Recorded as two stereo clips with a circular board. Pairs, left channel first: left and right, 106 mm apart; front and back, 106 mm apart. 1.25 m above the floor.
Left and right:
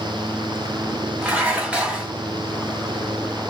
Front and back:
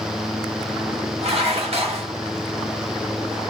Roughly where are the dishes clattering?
Behind.